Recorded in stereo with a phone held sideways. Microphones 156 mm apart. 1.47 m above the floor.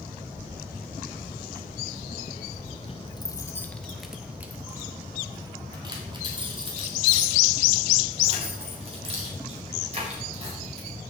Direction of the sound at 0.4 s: 65° left (ahead or behind).